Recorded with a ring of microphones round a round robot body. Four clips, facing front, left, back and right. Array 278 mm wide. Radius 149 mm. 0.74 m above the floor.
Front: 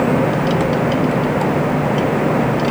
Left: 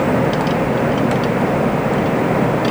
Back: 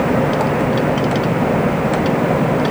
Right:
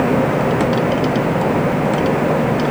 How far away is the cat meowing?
No cat meowing in this recording.